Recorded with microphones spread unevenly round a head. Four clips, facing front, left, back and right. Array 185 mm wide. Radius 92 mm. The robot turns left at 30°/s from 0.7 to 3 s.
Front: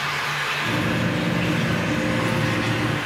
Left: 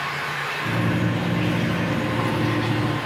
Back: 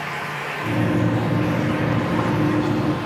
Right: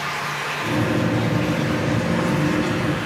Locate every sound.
0.0 s running water: 140° right, 0.8 m; by 3.1 s 150° left, 0.8 m